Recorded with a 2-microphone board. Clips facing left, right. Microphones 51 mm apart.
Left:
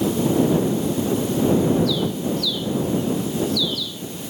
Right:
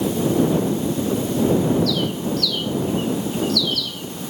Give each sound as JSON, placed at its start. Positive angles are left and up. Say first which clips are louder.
{"t": 1.9, "sound": "a bird", "louder": "even", "side_deg": -60}